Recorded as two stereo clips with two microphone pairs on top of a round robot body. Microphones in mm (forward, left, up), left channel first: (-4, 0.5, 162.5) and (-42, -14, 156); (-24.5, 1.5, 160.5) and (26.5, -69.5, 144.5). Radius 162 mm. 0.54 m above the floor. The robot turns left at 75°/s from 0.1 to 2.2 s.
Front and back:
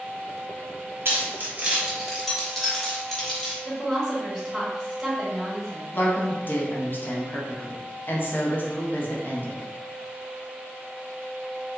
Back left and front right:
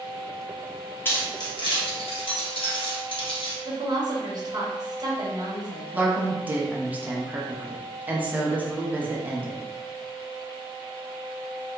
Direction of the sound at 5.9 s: 5° right.